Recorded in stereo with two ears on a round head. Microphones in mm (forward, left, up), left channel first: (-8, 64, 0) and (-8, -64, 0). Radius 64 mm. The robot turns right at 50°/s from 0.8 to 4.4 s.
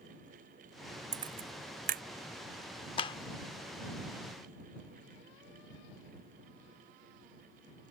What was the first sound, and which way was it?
A camera shutter, 30° right (ahead or behind).